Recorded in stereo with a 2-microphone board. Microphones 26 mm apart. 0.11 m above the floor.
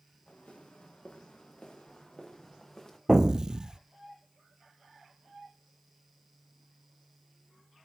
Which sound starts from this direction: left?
Footsteps, at 0.3 s.